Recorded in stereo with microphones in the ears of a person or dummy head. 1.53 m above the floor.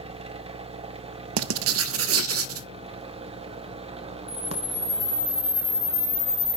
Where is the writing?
75° right (ahead or behind), 0.6 m.